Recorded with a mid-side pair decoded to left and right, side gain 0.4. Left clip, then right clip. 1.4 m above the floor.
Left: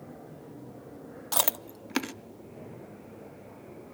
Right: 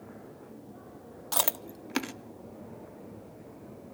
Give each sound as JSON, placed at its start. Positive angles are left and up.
{"t": 1.3, "sound": "chewing", "azimuth_deg": 5, "distance_m": 0.6}